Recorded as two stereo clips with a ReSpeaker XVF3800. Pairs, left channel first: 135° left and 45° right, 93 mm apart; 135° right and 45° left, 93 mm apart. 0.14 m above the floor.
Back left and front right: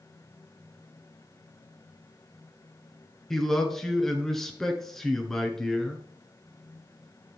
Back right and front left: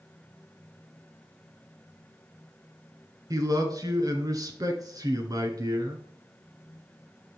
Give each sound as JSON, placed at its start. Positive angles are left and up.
{"t": 3.3, "sound": "a man speaking", "azimuth_deg": 50, "distance_m": 1.5}